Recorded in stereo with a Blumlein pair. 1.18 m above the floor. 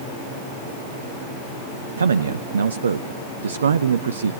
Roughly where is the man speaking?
Right.